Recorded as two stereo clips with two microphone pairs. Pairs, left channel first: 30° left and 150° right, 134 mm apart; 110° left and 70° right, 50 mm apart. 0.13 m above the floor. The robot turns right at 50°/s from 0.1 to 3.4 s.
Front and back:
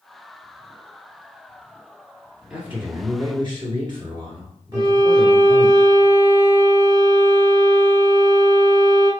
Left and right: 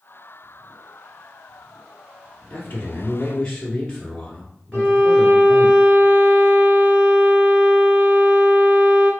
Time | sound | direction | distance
2.5 | a man speaking | 130° left | 1.5 m
4.7 | a violin | 85° right | 2 m